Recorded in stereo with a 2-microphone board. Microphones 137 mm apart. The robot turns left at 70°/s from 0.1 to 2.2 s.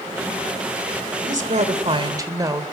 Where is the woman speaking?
85° right, 2.5 m; by 2.6 s 150° right, 2.5 m.